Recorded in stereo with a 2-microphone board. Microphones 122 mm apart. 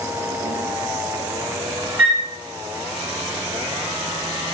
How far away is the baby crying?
No baby crying in this recording.